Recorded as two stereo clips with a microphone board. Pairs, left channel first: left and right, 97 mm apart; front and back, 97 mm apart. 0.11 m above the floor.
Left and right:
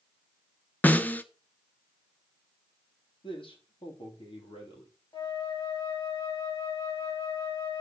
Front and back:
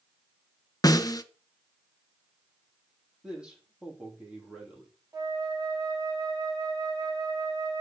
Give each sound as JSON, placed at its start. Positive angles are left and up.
{"t": 0.8, "sound": "a snare drum", "azimuth_deg": 25, "distance_m": 0.7}
{"t": 3.2, "sound": "a man speaking", "azimuth_deg": 100, "distance_m": 3.5}
{"t": 5.1, "sound": "a flute", "azimuth_deg": 125, "distance_m": 4.5}